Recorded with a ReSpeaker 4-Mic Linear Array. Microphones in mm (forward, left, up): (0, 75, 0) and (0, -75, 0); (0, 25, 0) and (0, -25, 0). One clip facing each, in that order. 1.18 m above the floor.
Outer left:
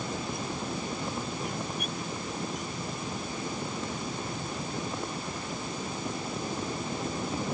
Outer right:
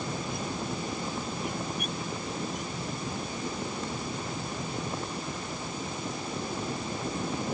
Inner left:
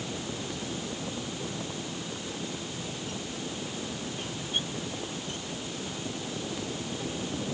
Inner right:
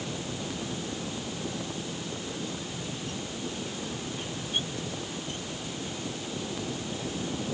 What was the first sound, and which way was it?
Only background noise.